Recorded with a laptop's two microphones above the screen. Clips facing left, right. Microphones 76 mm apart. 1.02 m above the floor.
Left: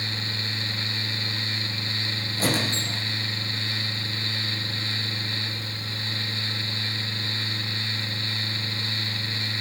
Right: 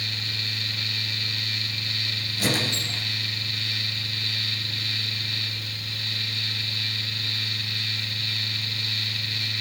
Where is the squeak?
40° left (ahead or behind), 6 m.